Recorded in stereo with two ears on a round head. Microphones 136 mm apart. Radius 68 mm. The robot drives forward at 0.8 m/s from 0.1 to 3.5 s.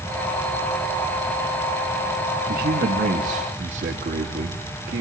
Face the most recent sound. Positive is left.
turn(degrees=-50)  # may be behind; listen again after turning